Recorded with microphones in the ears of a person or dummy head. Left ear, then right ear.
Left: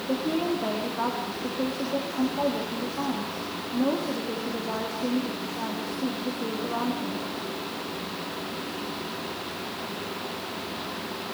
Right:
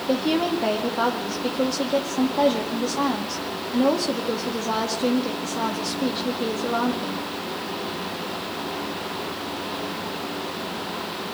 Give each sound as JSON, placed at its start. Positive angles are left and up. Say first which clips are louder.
{"t": 0.1, "sound": "a woman speaking", "louder": "right 5 dB", "side_deg": -75, "distance_m": 2.0}